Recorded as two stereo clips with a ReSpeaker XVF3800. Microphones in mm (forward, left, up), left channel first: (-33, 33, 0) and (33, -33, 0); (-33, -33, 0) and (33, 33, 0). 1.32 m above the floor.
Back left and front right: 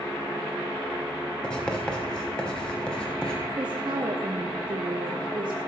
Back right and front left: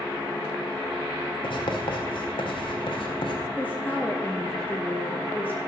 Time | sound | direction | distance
1.4 | writing | 145° right | 1.7 m
3.6 | a woman speaking | 65° right | 0.9 m